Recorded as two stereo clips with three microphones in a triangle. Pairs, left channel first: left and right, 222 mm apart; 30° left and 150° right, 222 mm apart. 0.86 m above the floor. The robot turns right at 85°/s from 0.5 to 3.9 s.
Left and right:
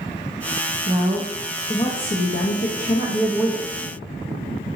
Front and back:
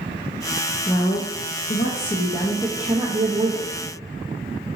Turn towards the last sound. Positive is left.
turn(degrees=-145)